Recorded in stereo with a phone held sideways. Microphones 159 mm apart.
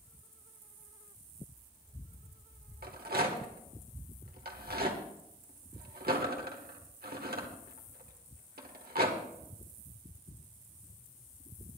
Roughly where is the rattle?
Right.